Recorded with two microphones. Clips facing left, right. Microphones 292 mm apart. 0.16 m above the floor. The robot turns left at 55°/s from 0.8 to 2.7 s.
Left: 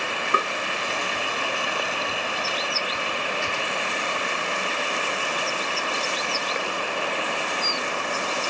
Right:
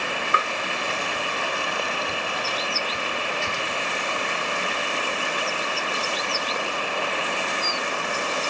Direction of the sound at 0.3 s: 40° left (ahead or behind).